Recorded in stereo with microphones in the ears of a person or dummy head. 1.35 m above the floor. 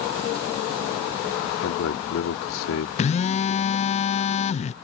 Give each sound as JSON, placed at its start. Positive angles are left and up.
{"t": 1.6, "sound": "a man speaking", "side_deg": 80}
{"t": 3.0, "sound": "a phone buzzing", "side_deg": 30}